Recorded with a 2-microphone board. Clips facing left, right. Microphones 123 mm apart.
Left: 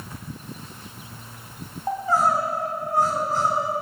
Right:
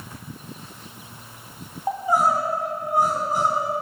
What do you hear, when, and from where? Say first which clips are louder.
1.9 s crying: right 1 dB; 15° right (ahead or behind), 1.5 m